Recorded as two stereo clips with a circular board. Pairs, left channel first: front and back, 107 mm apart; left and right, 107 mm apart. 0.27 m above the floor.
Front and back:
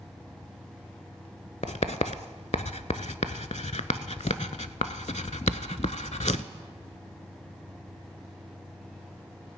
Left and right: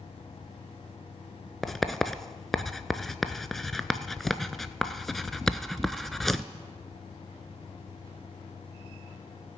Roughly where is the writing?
Ahead.